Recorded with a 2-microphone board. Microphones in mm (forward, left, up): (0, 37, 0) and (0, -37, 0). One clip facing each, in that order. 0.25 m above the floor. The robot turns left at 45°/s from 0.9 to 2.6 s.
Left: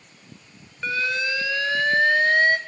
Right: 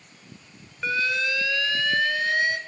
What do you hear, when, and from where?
0.8 s an alarm: 175° right, 1.1 m; by 2.6 s 110° left, 1.1 m